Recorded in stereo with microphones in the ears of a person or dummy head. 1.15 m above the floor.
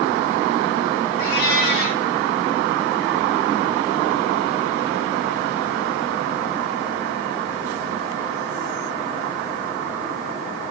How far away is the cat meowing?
About 1.4 m.